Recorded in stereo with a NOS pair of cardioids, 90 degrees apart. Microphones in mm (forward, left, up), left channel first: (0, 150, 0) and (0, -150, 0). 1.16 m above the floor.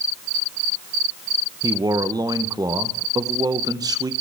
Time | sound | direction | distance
1.6 | a man speaking | 15° right | 0.6 m